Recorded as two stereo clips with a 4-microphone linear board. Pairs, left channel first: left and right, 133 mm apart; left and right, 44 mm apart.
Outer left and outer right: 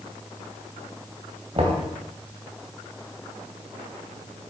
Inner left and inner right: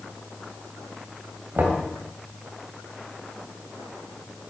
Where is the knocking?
45° right (ahead or behind), 3 m.